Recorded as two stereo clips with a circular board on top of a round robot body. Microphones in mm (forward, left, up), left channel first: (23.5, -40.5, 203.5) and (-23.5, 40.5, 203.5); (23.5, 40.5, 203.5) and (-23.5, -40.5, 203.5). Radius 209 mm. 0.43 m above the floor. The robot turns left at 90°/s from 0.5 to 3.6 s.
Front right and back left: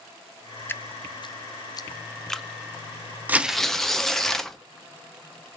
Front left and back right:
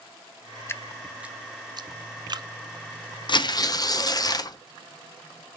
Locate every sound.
0.7 s dripping: 5° left, 0.5 m; by 2.5 s 155° right, 0.5 m
3.3 s tearing paper: 55° left, 0.8 m; by 4.6 s 25° left, 0.8 m